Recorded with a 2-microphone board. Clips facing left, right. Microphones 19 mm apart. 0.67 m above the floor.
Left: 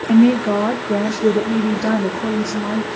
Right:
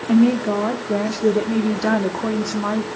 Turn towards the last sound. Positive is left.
turn(degrees=-40)  # may be behind; listen again after turning